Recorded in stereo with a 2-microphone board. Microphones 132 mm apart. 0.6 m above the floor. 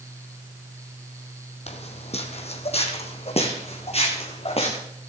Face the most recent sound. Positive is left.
turn(degrees=50)  # may be behind; listen again after turning